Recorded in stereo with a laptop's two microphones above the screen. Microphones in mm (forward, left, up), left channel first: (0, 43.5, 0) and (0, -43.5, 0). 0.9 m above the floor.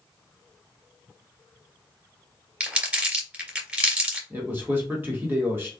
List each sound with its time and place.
2.6 s crumpling: 20° right (ahead or behind), 2.5 m
4.3 s a man speaking: 25° right (ahead or behind), 1.2 m